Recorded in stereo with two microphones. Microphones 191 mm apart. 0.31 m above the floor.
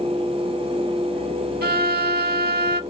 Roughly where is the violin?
Right.